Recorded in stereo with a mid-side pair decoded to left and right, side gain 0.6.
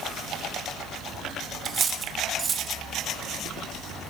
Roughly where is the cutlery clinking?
Ahead right.